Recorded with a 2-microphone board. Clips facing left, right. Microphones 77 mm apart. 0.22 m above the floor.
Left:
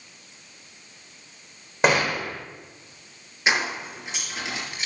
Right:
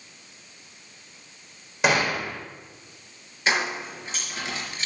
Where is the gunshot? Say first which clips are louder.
Left 1 dB; 40° left (ahead or behind), 3.5 m.